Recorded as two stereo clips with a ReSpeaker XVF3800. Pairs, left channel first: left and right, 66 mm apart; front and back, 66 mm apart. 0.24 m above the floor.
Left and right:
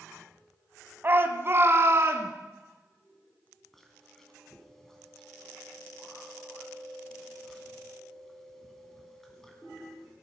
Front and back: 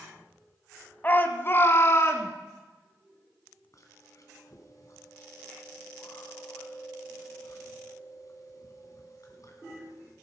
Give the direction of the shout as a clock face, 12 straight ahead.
2 o'clock.